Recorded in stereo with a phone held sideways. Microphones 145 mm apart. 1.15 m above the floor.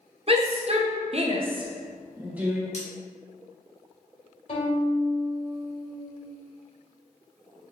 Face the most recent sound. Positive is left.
turn(degrees=55)  # may be behind; listen again after turning